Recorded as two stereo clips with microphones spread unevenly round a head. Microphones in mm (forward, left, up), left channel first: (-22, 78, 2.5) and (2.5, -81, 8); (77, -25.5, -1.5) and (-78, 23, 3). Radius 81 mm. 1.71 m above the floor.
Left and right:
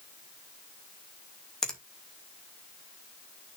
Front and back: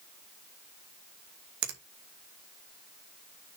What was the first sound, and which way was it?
A finger snap, 175° right.